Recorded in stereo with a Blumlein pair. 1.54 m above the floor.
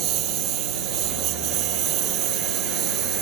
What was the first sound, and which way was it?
A lawn mower, 35° right.